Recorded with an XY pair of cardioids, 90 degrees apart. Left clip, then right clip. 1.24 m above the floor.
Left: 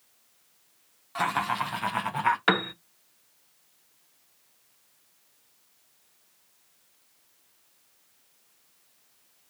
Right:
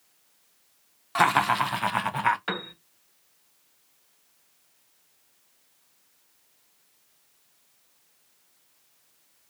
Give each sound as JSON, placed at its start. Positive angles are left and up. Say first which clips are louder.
{"t": 1.1, "sound": "laughter", "louder": "right 6 dB", "azimuth_deg": -65, "distance_m": 0.7}
{"t": 2.5, "sound": "a piano", "louder": "left 8 dB", "azimuth_deg": 70, "distance_m": 0.5}